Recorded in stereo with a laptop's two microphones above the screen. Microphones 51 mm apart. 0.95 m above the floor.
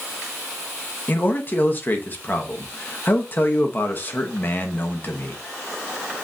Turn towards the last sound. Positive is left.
turn(degrees=35)  # may be behind; listen again after turning